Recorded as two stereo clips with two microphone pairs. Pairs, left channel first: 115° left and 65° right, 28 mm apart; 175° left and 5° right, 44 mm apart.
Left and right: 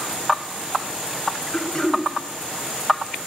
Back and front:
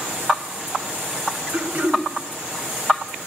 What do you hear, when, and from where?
1.5 s throat clearing: 50° left, 1.8 m